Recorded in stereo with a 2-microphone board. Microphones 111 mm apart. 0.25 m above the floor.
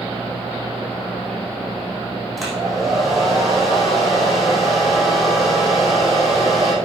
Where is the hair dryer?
Centre (ahead or behind), 4.5 m.